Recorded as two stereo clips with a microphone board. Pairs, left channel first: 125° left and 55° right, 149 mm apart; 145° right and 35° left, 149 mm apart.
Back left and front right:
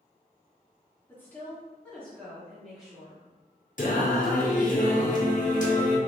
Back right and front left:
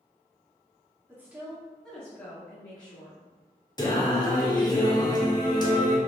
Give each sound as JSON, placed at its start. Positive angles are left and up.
{"t": 1.1, "sound": "a woman speaking", "azimuth_deg": 75, "distance_m": 1.3}
{"t": 3.8, "sound": "singing", "azimuth_deg": 155, "distance_m": 0.7}